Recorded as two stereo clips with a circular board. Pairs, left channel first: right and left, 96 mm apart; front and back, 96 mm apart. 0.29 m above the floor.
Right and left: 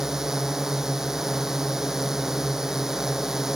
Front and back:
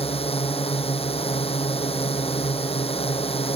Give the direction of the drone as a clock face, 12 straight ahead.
12 o'clock.